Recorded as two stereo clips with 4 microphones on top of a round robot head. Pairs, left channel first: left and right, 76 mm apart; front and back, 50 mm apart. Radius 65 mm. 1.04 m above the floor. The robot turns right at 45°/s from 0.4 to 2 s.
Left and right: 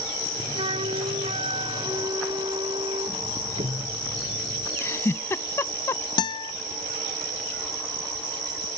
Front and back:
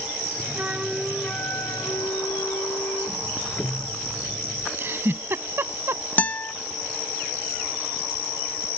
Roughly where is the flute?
Right.